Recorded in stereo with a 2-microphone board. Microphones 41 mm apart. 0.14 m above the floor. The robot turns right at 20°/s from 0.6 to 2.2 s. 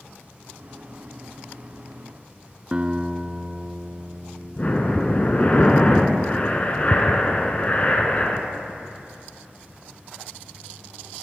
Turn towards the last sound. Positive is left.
turn(degrees=35)  # may be behind; listen again after turning